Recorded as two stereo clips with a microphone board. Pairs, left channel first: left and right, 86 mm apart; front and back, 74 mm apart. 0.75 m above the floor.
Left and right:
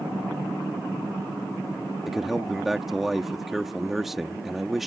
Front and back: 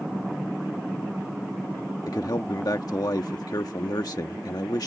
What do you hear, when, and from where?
2.1 s a man speaking: 5° right